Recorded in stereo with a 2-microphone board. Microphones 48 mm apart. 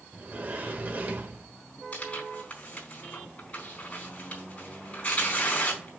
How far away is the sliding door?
About 1.3 m.